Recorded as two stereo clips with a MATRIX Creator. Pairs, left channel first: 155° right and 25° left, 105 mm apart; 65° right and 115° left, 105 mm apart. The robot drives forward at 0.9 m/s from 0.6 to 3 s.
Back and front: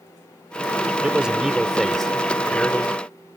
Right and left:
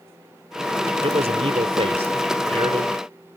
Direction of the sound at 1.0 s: 100° left.